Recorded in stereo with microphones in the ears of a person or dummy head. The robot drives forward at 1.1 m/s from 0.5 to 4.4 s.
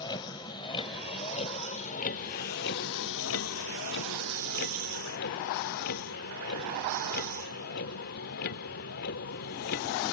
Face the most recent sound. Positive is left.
turn(degrees=50)  # may be behind; listen again after turning